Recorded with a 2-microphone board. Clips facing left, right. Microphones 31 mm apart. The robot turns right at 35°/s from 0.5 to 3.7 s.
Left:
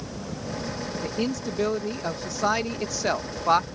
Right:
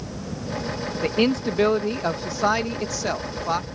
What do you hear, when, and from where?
1.0 s a man speaking: 60° right; by 3.6 s 30° left